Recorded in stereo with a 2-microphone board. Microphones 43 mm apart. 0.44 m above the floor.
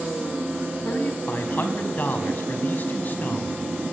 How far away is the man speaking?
About 4 m.